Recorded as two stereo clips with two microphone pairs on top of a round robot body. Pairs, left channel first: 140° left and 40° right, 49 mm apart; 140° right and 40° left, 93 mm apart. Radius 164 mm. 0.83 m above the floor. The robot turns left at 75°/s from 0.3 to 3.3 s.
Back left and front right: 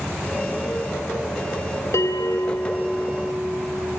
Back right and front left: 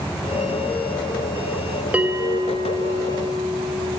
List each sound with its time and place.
1.9 s a bell: 115° left, 3.5 m; by 4.0 s 15° left, 3.5 m